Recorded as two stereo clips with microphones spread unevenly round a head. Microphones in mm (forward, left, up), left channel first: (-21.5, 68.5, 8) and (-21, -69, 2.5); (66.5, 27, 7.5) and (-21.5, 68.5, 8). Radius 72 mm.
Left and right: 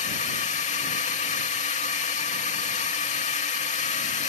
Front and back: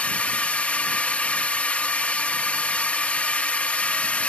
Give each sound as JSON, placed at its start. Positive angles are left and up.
{"t": 0.0, "sound": "a drone", "azimuth_deg": 50}